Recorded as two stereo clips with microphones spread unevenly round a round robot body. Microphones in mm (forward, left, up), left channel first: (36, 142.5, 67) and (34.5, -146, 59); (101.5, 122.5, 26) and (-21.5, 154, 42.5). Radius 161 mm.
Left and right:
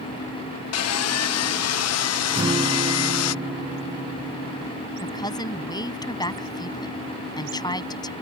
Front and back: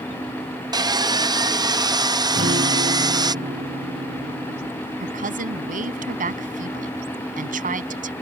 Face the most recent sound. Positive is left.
turn(degrees=165)